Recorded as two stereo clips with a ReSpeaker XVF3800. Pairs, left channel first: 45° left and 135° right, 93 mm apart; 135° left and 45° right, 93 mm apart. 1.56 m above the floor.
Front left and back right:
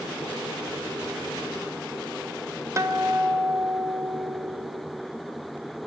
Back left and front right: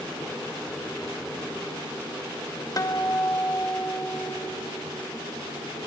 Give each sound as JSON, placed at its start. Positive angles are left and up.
{"t": 2.8, "sound": "a guitar", "azimuth_deg": 175, "distance_m": 1.4}